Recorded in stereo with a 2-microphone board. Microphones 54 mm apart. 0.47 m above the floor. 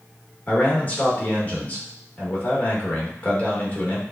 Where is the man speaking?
25° left (ahead or behind), 1.3 m.